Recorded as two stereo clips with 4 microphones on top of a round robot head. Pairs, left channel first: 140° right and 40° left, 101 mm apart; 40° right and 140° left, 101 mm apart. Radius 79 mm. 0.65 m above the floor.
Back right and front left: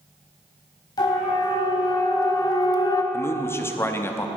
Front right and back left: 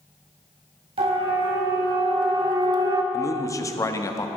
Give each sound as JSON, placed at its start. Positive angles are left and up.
{"t": 1.0, "sound": "a siren", "azimuth_deg": 170, "distance_m": 4.5}
{"t": 3.1, "sound": "a man speaking", "azimuth_deg": -85, "distance_m": 1.2}